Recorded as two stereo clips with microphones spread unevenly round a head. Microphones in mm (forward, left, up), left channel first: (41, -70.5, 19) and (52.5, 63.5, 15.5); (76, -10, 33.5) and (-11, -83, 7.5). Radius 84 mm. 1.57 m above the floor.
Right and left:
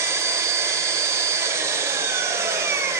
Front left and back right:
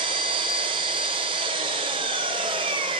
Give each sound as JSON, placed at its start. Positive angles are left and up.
{"t": 0.0, "sound": "an engine running", "azimuth_deg": 155, "distance_m": 1.8}